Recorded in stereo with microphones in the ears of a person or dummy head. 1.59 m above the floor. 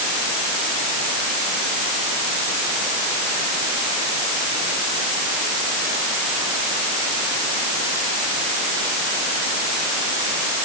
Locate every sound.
Only background noise.